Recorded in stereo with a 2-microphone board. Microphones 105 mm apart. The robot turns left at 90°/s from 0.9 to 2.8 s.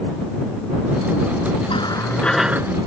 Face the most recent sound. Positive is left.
turn(degrees=-40)